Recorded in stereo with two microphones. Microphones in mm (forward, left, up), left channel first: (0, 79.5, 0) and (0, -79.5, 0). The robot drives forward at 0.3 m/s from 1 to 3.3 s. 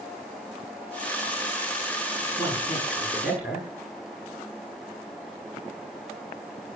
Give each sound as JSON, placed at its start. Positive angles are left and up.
{"t": 2.4, "sound": "a man speaking", "side_deg": -5, "distance_m": 7.5}